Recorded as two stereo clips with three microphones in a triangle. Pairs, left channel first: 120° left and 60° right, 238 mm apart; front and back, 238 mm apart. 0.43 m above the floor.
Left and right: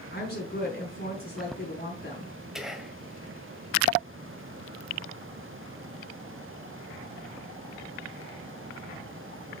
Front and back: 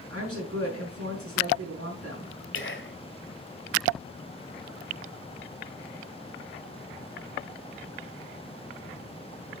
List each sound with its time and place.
0.1 s a woman speaking: 165° left, 4.5 m
2.5 s whispering: 30° left, 2.0 m